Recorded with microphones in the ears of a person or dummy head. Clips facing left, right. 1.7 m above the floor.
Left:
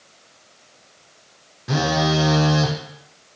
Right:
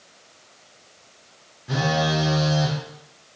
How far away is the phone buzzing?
About 0.5 m.